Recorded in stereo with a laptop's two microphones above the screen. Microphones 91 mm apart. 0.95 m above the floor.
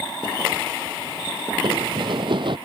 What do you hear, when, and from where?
1.6 s running footsteps: 60° right (ahead or behind)